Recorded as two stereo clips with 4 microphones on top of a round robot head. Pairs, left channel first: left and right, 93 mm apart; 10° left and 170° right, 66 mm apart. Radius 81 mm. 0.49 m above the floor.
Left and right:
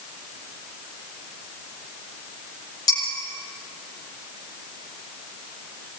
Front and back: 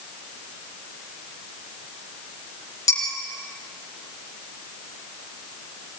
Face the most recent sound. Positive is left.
turn(degrees=40)